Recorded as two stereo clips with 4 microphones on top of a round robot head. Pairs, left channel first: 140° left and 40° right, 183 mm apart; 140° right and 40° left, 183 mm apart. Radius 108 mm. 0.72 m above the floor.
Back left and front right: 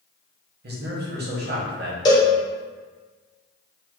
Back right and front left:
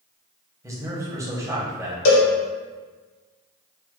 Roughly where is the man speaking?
Ahead right.